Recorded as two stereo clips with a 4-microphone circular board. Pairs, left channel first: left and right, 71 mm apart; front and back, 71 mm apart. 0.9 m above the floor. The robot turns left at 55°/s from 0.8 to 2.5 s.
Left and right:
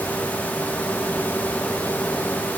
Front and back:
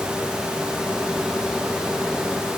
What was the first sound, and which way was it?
Only background noise.